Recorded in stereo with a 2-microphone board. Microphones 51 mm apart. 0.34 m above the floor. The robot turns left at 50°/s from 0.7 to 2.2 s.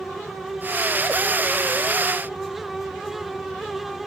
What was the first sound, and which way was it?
Only background noise.